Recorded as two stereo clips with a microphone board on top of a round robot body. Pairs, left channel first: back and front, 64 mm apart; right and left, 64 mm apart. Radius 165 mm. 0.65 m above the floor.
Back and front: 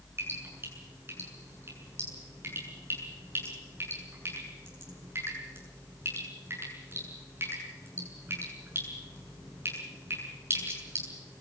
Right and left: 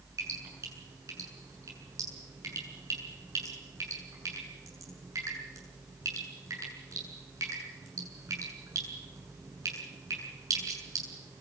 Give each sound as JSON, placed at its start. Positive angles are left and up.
{"t": 0.2, "sound": "dripping", "azimuth_deg": 55, "distance_m": 7.5}